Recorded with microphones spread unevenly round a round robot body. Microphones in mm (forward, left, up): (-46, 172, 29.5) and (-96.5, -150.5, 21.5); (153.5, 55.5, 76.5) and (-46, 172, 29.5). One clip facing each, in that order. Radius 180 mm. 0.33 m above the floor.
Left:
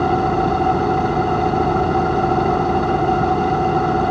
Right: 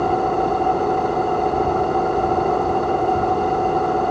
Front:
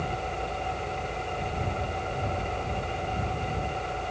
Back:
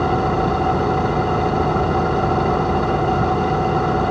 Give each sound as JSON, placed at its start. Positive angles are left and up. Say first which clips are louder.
{"t": 0.0, "sound": "an engine running", "louder": "left 2 dB, back 15 dB", "azimuth_deg": 135}